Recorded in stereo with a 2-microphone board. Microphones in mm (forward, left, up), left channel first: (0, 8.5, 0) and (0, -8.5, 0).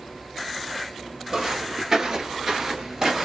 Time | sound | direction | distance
1.3 | footsteps | 30° right (ahead or behind) | 1.0 m